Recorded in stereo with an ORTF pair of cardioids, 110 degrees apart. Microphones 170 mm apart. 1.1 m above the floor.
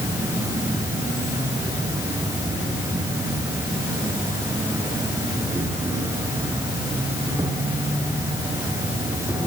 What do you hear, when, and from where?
0.0 s an insect: 15° right, 7 m